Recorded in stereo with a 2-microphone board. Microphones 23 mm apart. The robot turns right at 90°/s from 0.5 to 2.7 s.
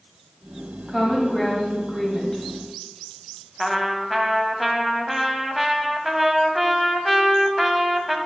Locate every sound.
0.9 s a woman speaking: 35° right, 1.2 m; by 2.4 s 105° left, 1.2 m
3.6 s a trumpet: 10° right (ahead or behind), 0.7 m